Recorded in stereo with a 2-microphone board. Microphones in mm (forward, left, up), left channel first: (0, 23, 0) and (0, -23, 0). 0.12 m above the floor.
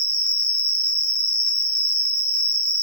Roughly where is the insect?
Left.